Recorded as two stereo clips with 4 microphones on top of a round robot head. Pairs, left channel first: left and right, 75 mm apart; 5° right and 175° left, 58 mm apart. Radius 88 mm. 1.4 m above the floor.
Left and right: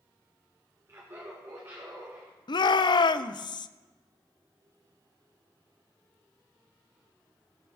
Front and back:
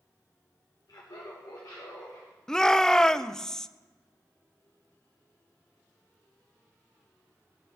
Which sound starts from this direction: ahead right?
Laughter, at 0.9 s.